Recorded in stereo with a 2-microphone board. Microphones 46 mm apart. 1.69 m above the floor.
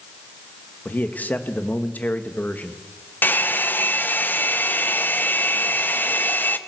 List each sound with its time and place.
0.8 s a man speaking: 40° left (ahead or behind), 2.0 m
3.2 s a hair dryer: 50° left (ahead or behind), 1.1 m